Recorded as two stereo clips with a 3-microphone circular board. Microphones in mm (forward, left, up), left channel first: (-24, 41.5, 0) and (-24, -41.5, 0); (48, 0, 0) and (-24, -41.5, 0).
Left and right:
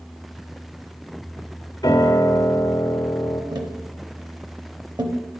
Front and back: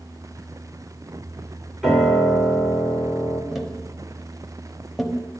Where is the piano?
125° left, 1.7 m.